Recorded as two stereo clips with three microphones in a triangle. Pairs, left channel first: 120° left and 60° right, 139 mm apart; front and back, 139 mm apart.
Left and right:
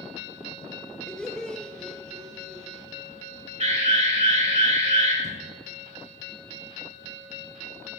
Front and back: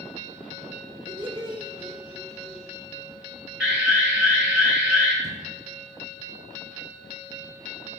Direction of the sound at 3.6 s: 95° right.